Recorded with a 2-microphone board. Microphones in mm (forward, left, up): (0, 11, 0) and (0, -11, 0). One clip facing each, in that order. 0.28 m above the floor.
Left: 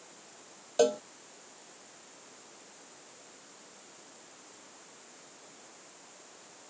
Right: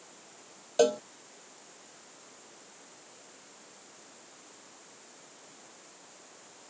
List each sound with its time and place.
0.8 s a cowbell: 15° right (ahead or behind)